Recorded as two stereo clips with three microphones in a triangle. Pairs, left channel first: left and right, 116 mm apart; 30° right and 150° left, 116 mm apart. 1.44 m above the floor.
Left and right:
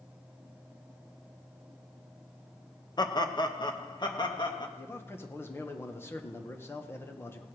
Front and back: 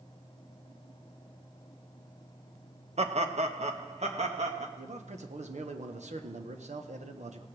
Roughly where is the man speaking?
Behind.